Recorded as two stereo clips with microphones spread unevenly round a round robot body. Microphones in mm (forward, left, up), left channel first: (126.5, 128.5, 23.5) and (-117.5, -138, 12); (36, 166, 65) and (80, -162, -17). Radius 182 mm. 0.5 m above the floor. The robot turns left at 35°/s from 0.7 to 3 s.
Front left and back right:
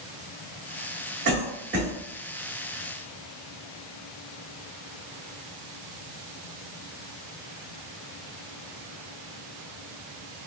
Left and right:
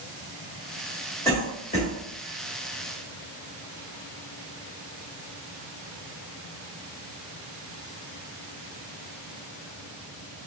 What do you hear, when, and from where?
1.2 s a cough: 165° right, 1.5 m; by 1.9 s 170° left, 1.5 m